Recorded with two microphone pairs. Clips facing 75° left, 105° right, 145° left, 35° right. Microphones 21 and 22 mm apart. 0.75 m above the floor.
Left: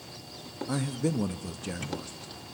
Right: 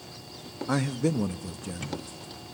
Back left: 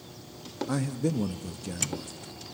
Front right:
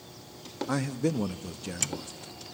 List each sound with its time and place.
0.7 s a man speaking: 95° right, 0.8 m; by 2.3 s 40° left, 1.1 m